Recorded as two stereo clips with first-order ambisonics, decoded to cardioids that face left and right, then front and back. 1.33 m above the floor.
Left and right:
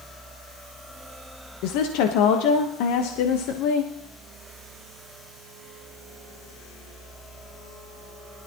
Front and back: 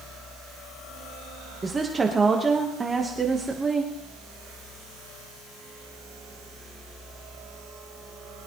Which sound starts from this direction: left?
A woman speaking, at 1.6 s.